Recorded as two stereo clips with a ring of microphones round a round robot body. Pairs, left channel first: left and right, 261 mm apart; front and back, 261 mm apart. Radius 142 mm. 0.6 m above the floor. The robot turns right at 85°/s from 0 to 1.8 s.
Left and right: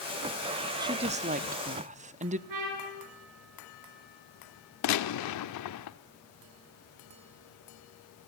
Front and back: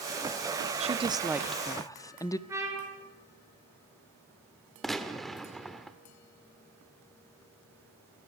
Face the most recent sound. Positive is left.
turn(degrees=90)